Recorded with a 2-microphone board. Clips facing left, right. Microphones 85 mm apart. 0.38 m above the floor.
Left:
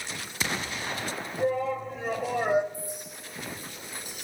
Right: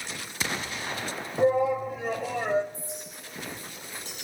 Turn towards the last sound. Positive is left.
turn(degrees=10)  # may be behind; listen again after turning